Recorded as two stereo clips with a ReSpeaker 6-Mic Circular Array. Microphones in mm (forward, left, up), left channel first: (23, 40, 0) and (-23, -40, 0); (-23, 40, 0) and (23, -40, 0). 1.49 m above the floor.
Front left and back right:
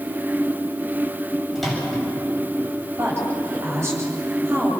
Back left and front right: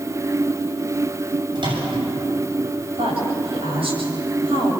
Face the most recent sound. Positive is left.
turn(degrees=-60)